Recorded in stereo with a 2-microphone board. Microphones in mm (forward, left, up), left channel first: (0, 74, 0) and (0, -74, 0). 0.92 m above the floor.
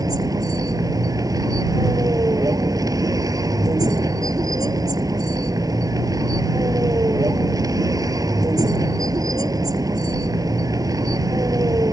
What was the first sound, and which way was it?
A vehicle, 25° right (ahead or behind).